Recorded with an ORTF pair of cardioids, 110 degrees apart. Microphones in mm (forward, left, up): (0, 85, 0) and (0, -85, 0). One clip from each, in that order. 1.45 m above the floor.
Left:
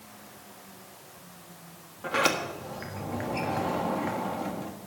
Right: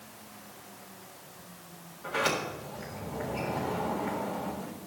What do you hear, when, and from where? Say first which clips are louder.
2.0 s a sliding door: left 3 dB; 55° left, 1.7 m